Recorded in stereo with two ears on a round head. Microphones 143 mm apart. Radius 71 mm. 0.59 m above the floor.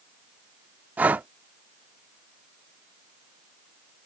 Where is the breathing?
10° right (ahead or behind).